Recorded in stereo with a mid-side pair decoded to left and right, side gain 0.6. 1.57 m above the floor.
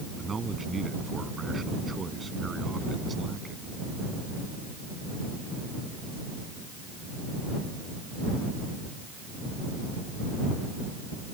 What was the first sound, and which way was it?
A man speaking, 25° right.